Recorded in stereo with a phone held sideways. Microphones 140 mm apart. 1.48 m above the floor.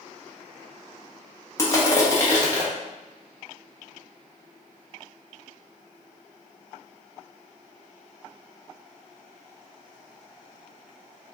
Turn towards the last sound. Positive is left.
turn(degrees=20)  # may be behind; listen again after turning